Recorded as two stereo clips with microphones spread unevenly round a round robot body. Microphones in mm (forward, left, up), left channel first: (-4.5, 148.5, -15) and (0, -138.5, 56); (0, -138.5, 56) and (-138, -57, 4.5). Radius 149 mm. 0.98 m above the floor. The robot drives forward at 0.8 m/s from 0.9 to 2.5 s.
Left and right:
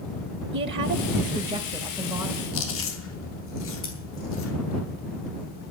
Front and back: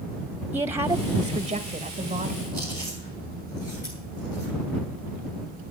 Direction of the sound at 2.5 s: 50° left.